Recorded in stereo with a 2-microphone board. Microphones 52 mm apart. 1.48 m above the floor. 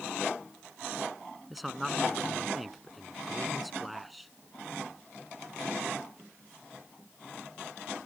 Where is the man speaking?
Centre (ahead or behind).